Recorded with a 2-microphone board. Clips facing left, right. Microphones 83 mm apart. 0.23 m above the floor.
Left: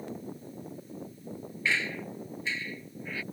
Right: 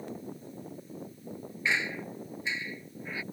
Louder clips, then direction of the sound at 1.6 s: Even; 20° right (ahead or behind).